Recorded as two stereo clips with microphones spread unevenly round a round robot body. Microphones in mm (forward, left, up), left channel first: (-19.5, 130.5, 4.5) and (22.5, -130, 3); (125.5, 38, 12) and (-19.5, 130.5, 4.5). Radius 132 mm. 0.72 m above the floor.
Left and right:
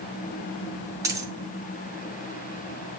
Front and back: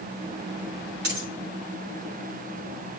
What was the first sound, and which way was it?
A dropped coin, 160° right.